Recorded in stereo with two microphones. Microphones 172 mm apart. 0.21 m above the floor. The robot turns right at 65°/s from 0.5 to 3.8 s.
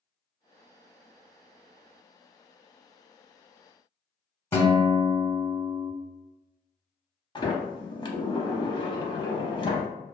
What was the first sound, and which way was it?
A guitar, 15° left (ahead or behind).